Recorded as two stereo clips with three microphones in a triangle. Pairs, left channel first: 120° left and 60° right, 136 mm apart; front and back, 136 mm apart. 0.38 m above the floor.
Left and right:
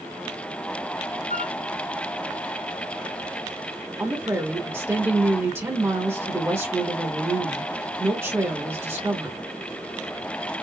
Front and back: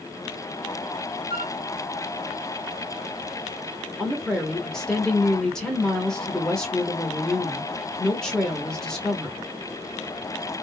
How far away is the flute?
About 1.9 m.